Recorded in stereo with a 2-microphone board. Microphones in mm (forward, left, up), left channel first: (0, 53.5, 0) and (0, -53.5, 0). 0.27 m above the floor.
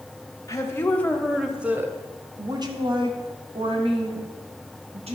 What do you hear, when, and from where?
0.5 s a woman speaking: 30° left (ahead or behind), 1.1 m; by 5.2 s 70° right (ahead or behind), 3 m